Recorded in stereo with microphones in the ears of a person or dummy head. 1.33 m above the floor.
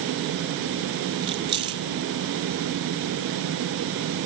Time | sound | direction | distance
1.2 | keys jangling | 25° right (ahead or behind) | ?